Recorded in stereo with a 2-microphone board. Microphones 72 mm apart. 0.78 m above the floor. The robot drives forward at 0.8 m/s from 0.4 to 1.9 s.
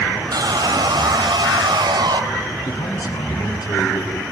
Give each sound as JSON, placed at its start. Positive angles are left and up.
{"t": 0.3, "sound": "sawing", "side_deg": -65, "distance_m": 2.5}
{"t": 2.6, "sound": "a man speaking", "side_deg": 60, "distance_m": 7.5}